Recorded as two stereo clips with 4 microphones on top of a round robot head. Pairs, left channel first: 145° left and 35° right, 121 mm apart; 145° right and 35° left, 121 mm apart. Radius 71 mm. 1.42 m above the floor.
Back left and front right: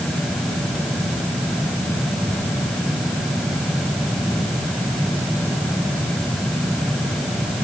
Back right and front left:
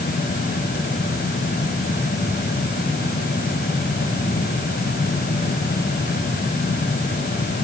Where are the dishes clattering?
No dishes clattering in this recording.